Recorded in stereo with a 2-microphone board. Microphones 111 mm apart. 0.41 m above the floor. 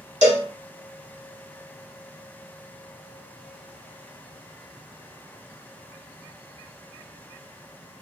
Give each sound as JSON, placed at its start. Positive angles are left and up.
{"t": 0.2, "sound": "a cowbell", "side_deg": -85, "distance_m": 0.7}